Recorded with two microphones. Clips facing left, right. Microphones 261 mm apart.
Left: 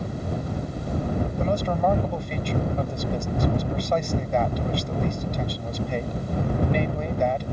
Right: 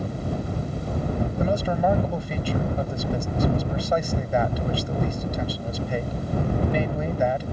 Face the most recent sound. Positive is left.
turn(degrees=-5)  # may be behind; listen again after turning